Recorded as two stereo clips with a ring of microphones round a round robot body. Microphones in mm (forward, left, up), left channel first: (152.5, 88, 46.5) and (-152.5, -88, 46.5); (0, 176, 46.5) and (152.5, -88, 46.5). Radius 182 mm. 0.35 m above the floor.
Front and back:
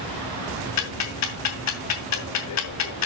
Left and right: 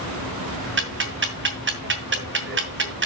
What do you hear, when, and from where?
0.8 s ticking: 10° right, 2.5 m